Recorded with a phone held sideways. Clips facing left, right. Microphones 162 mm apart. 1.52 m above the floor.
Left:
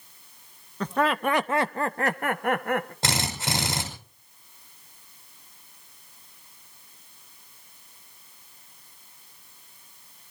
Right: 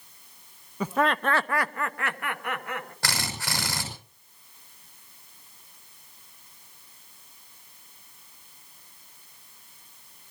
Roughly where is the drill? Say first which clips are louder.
Left 4 dB; left.